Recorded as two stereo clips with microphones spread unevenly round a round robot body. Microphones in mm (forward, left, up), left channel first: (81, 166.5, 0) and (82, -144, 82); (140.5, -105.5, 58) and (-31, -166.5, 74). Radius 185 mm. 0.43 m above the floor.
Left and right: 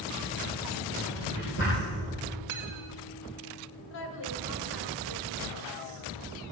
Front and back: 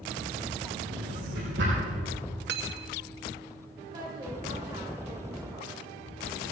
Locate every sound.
0.9 s a drawer: 150° left, 6.5 m
2.5 s cutlery clinking: 135° right, 1.0 m
3.9 s a woman speaking: 125° left, 2.0 m